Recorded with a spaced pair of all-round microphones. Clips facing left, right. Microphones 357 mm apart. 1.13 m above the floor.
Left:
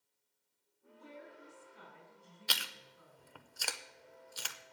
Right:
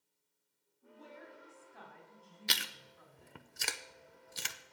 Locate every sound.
0.8 s a woman speaking: 80° right, 4 m
2.5 s chewing: 35° right (ahead or behind), 0.6 m